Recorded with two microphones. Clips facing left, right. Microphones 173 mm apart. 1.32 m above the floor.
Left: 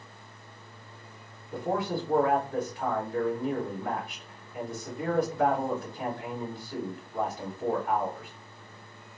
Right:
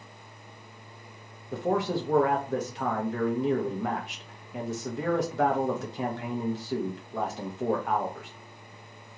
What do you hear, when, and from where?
1.5 s a man speaking: 85° right, 1.0 m